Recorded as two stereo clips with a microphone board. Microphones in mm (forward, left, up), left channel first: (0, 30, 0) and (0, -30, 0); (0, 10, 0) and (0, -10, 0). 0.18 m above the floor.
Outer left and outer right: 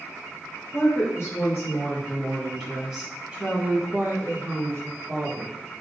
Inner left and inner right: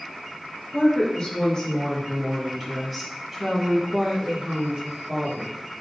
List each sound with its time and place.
0.7 s a woman speaking: 50° left (ahead or behind), 1.7 m; by 5.5 s 60° right (ahead or behind), 2 m